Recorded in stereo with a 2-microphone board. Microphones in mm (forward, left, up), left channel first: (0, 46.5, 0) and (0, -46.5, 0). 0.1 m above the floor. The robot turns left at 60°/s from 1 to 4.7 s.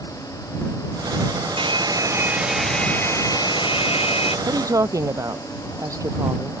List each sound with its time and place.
1.6 s a hair dryer: 120° right; by 4.4 s 75° left
4.5 s a woman speaking: 45° right (ahead or behind); by 6.6 s 35° right (ahead or behind)